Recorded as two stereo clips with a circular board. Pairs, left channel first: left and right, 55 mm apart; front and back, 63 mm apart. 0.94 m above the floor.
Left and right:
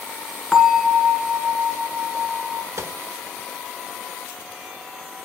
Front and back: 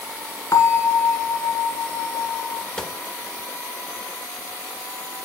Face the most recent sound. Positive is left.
turn(degrees=-75)